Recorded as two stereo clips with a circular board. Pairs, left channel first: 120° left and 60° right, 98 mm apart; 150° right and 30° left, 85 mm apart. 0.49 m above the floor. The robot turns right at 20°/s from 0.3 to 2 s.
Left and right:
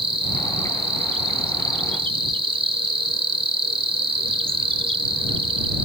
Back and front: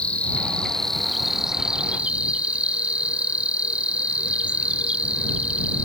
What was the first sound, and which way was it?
An insect, 75° right.